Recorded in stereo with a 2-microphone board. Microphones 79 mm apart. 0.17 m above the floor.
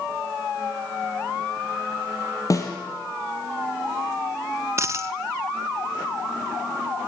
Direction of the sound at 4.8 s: 35° right (ahead or behind).